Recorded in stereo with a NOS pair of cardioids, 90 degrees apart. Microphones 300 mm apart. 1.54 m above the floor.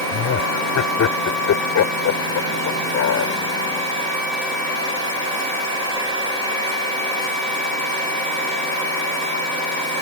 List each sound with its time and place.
0.1 s laughter: 65° left